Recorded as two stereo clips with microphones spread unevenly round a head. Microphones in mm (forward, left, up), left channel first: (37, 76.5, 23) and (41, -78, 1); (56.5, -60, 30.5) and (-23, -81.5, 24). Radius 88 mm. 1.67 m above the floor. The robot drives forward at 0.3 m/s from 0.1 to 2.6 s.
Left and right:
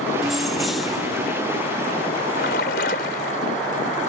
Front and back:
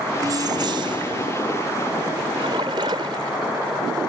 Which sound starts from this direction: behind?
Keys jangling, at 0.2 s.